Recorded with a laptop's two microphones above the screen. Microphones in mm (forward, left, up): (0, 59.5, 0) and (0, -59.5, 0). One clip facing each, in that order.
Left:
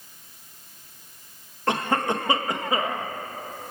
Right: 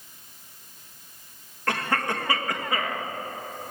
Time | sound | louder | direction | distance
1.7 | a cough | left 3 dB | 25° left (ahead or behind) | 1.5 m